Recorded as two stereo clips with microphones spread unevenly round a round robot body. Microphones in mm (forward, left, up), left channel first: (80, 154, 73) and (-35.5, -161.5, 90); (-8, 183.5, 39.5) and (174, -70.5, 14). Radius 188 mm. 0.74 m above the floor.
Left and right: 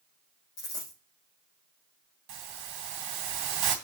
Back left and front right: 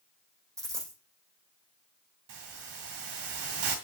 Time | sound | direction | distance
0.6 | a dropped coin | 25° left | 5 m
2.3 | a hiss | 95° right | 1.7 m